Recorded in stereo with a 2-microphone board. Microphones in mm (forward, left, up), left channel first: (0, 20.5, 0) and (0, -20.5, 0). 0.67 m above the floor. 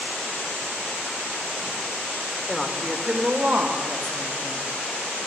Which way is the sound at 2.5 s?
Centre (ahead or behind).